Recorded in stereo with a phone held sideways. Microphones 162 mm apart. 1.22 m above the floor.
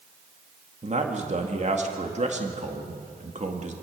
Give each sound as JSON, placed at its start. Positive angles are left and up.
{"t": 0.8, "sound": "a man speaking", "side_deg": -45, "distance_m": 1.9}